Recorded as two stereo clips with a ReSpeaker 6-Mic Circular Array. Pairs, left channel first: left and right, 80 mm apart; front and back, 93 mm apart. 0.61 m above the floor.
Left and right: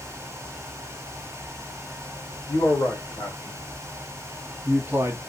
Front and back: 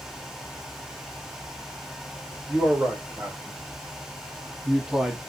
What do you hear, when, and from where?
2.5 s a man speaking: 115° left, 1.2 m; by 5.2 s 95° right, 0.6 m